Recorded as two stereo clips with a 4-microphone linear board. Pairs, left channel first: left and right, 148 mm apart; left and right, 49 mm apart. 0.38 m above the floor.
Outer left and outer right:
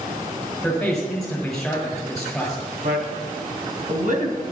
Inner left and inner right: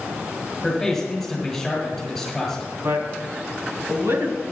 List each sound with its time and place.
0.6 s a man speaking: 5° left (ahead or behind), 6.5 m
2.8 s a man speaking: 65° right (ahead or behind), 3 m